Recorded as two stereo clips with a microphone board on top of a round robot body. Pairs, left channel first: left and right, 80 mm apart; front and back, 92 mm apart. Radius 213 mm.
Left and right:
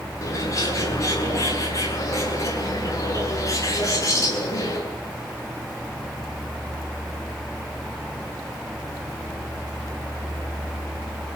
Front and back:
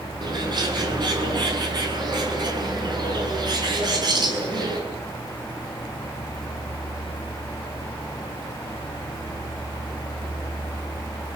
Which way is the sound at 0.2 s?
140° left.